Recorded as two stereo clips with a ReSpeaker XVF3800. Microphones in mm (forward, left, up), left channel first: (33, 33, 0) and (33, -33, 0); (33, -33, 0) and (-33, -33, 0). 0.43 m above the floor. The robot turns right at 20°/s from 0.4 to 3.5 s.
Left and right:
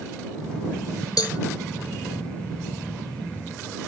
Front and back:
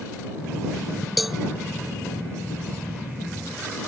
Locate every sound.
1.2 s a cowbell: 90° left; by 1.4 s 95° left